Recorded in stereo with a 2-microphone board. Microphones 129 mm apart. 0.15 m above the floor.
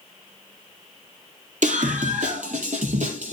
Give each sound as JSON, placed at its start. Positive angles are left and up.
{"t": 1.6, "sound": "a scream", "side_deg": -70, "distance_m": 3.5}